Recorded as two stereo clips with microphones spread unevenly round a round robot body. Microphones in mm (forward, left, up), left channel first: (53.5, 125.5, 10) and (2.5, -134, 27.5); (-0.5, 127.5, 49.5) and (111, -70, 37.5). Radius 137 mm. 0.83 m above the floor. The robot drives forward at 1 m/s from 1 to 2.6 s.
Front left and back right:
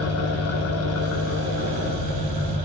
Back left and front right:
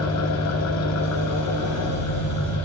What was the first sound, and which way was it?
An engine running, 115° left.